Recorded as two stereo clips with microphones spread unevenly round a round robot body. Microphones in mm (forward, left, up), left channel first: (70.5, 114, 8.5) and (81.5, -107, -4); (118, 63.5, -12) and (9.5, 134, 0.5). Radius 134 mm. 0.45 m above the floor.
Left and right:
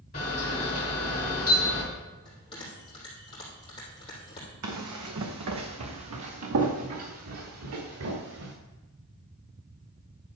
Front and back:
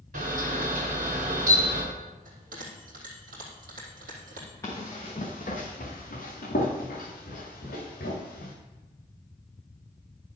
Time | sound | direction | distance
0.1 | a camera shutter | 155° left | 3 m
2.2 | a bell | 165° left | 3.5 m
4.6 | running footsteps | 110° right | 1.5 m